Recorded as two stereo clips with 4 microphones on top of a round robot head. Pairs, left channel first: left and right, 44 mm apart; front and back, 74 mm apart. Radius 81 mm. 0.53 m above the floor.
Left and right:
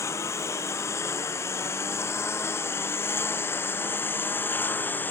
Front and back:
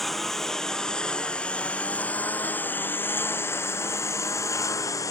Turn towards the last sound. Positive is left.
turn(degrees=45)